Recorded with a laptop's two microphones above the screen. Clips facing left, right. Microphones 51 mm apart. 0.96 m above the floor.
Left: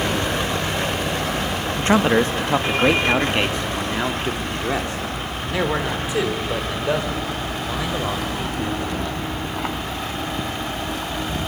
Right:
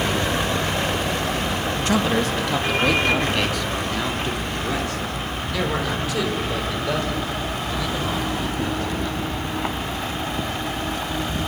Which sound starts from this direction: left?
A man speaking, at 1.8 s.